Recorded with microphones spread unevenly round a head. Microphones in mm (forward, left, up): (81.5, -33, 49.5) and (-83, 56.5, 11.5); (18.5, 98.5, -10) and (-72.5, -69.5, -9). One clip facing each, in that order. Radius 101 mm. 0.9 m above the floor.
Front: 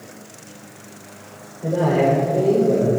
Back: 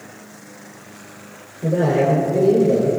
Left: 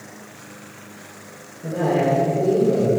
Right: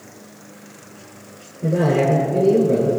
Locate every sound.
1.6 s a man speaking: 140° right, 3.5 m